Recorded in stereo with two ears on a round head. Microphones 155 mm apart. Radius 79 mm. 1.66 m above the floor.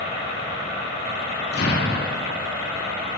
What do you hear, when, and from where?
1.5 s an explosion: 65° left (ahead or behind), 1.6 m